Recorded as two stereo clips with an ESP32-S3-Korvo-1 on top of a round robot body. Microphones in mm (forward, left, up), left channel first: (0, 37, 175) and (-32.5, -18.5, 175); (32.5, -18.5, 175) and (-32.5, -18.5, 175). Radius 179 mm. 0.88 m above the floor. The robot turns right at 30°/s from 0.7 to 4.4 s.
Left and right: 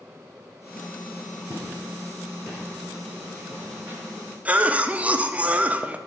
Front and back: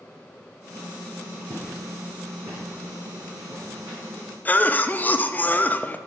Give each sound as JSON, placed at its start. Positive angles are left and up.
{"t": 1.5, "sound": "footsteps", "azimuth_deg": 115, "distance_m": 2.0}
{"t": 4.5, "sound": "a cough", "azimuth_deg": -55, "distance_m": 0.5}